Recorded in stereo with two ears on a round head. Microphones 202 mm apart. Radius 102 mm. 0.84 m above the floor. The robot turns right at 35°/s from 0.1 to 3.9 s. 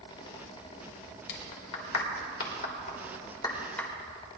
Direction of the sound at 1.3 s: 80° left.